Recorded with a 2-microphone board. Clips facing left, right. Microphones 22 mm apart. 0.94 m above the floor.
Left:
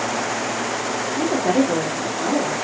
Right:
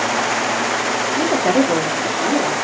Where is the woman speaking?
40° right (ahead or behind), 2.5 m; by 2.5 s 55° right (ahead or behind), 3 m.